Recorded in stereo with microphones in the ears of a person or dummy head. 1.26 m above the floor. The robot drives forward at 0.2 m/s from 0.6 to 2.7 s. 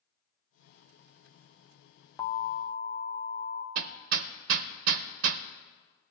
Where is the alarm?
15° left (ahead or behind), 1.1 m.